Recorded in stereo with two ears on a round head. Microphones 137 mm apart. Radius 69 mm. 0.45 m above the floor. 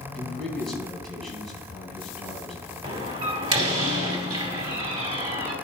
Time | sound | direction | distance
0.1 | a man speaking | 5° left (ahead or behind) | 3 m
2.8 | a door slam | 25° right (ahead or behind) | 2.0 m